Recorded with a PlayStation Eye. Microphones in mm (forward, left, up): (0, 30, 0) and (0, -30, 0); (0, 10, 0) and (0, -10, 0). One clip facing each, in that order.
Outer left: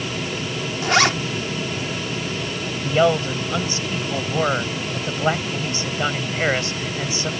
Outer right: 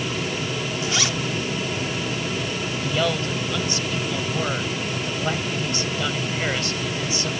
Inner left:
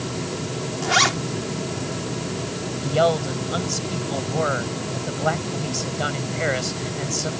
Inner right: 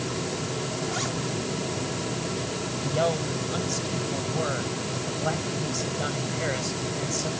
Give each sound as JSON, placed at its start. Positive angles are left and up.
{"t": 0.8, "sound": "a zipper", "side_deg": 60}
{"t": 2.8, "sound": "a man speaking", "side_deg": 30}